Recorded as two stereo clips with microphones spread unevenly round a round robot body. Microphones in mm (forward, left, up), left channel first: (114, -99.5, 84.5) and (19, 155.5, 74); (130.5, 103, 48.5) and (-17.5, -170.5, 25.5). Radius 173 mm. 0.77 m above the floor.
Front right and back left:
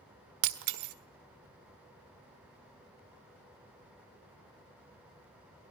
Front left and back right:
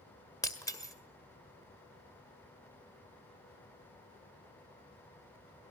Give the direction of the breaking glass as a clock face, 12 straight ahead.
7 o'clock.